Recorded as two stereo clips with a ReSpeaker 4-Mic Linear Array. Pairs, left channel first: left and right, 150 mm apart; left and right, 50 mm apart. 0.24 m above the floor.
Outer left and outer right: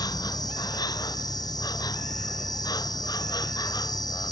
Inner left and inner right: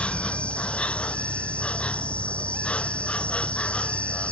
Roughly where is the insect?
Left.